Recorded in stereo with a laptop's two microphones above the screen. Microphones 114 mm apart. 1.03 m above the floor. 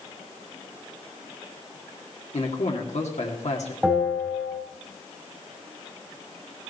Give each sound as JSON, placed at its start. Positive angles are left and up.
{"t": 2.3, "sound": "a man speaking", "side_deg": 80, "distance_m": 2.0}
{"t": 3.8, "sound": "a bell", "side_deg": -5, "distance_m": 4.0}